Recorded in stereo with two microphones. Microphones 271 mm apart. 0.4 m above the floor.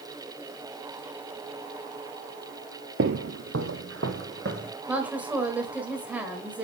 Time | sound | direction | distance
3.0 | footsteps | 50° right (ahead or behind) | 0.5 m
4.9 | a woman speaking | 5° right (ahead or behind) | 1.5 m